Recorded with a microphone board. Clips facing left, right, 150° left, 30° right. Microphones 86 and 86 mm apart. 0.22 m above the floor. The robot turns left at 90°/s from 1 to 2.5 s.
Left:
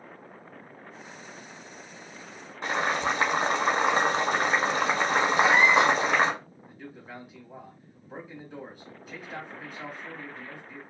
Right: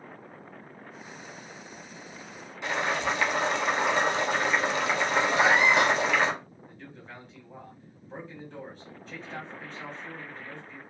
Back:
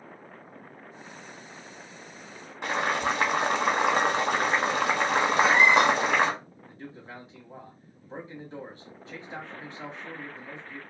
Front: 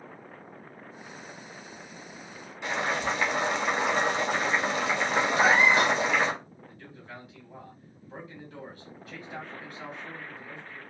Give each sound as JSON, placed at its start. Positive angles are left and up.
{"t": 2.6, "sound": "boiling", "azimuth_deg": 130, "distance_m": 0.9}
{"t": 5.3, "sound": "a cat meowing", "azimuth_deg": -75, "distance_m": 1.0}
{"t": 6.7, "sound": "a man speaking", "azimuth_deg": 160, "distance_m": 1.1}